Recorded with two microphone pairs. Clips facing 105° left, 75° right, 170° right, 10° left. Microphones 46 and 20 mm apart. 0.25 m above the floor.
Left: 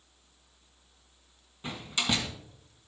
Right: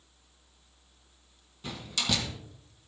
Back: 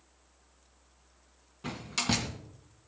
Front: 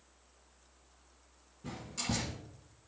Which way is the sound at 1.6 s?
170° left.